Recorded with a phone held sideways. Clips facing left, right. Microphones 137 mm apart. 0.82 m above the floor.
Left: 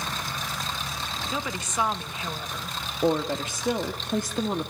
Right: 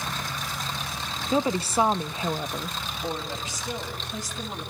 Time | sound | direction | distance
1.3 | a woman speaking | 30° right (ahead or behind) | 0.8 m
3.0 | a woman speaking | 60° left (ahead or behind) | 1.8 m